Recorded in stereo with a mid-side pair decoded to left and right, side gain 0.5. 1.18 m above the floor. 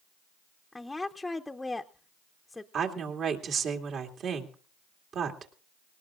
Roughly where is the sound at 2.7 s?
Ahead right.